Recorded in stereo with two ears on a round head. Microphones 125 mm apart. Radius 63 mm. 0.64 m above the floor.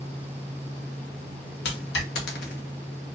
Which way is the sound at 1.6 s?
80° left.